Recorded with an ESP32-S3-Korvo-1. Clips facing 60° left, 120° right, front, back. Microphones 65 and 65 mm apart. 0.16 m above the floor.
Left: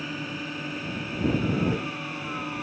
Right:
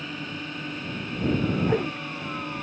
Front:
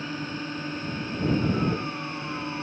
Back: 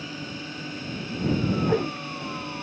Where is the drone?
25° right.